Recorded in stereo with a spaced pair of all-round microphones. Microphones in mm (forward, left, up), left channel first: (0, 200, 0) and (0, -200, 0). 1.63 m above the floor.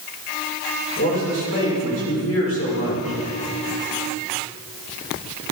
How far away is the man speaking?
About 6 m.